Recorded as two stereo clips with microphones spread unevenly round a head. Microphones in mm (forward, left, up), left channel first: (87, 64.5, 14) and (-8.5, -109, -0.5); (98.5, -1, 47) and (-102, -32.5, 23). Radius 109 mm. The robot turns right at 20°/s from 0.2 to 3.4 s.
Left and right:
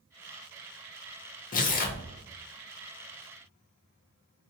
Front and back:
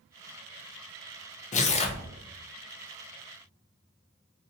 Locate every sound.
1.5 s tearing paper: 50° left, 0.5 m; by 2.0 s 60° left, 0.5 m